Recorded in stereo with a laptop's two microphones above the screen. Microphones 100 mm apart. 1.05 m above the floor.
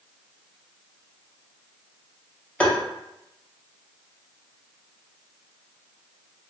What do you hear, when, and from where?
2.6 s tapping: 15° left (ahead or behind), 0.8 m